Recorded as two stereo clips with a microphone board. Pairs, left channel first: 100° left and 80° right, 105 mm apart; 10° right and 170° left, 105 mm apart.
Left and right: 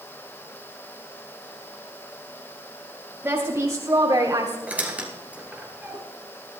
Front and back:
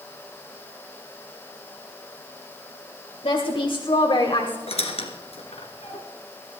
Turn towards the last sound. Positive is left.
turn(degrees=-5)